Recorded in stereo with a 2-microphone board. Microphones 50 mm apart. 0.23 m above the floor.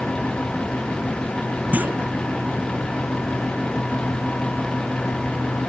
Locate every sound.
1.7 s a clunk: 35° right (ahead or behind)